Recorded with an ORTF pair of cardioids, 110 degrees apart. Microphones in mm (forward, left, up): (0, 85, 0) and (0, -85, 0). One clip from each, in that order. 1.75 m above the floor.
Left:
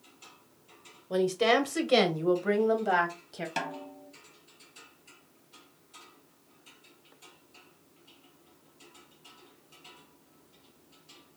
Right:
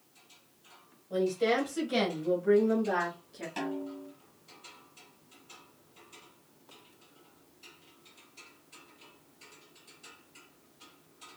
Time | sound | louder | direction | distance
1.1 | a woman speaking | left 3 dB | 60° left | 1.3 m
3.6 | a snare drum | even | 50° left | 1.2 m